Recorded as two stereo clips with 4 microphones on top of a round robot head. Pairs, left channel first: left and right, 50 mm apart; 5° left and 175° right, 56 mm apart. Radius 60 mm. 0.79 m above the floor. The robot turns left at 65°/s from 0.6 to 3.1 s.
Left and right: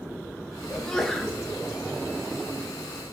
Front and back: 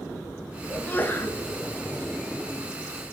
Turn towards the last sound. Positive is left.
turn(degrees=-125)